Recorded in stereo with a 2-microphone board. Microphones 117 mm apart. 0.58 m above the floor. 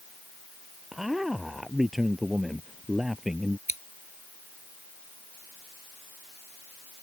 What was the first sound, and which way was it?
A man speaking, 5° right (ahead or behind).